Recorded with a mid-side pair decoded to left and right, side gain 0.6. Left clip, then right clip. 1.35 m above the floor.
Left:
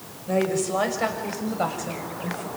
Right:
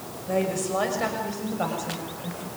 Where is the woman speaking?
10° left, 5.5 m; by 2.5 s 25° left, 7 m.